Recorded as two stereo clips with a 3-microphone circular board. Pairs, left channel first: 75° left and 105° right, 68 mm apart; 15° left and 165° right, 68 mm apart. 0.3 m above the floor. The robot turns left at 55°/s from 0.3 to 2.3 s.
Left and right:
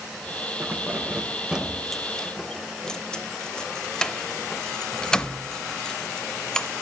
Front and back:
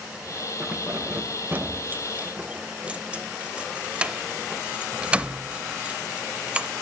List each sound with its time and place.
0.6 s keys jangling: 125° right, 0.6 m; by 6.7 s 140° left, 0.6 m